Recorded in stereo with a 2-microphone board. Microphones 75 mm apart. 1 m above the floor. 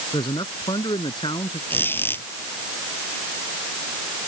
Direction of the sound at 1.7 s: 30° left (ahead or behind).